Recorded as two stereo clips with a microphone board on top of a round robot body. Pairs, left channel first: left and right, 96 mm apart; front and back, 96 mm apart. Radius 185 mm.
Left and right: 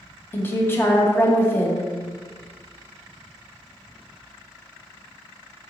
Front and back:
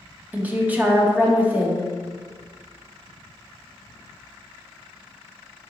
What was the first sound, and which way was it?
A woman speaking, 125° left.